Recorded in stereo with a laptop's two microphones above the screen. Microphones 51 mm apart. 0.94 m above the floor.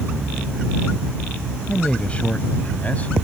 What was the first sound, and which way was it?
A man speaking, 25° left (ahead or behind).